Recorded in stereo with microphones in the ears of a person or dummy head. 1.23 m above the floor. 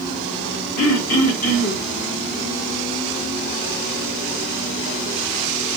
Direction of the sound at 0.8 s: 40° left (ahead or behind).